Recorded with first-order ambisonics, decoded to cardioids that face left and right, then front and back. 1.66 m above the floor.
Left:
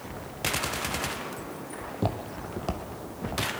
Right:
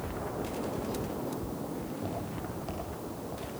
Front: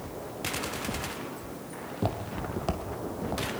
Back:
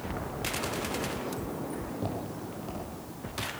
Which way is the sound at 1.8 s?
75° left.